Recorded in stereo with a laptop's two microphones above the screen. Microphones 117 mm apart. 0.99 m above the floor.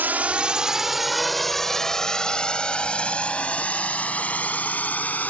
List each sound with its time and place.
0.0 s a drone: 15° right (ahead or behind); by 5.3 s 15° left (ahead or behind)